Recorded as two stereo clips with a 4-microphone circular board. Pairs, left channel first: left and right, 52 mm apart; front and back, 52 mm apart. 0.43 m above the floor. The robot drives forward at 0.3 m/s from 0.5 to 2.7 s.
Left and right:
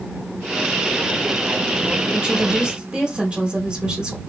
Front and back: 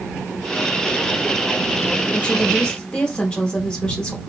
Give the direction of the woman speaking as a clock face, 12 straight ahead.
1 o'clock.